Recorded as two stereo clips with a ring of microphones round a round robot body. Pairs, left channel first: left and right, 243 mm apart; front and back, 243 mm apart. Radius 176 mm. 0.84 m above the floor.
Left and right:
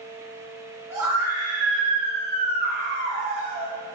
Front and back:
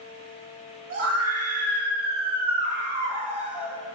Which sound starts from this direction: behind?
A scream, at 0.9 s.